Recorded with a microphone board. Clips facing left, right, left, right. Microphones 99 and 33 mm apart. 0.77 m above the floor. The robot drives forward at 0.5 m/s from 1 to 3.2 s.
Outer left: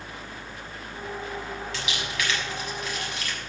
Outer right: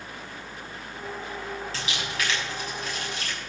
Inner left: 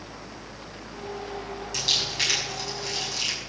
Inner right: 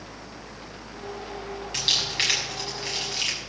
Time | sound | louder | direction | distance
1.7 | crumpling | even, inner right 1 dB | 35° right (ahead or behind) | 6.5 m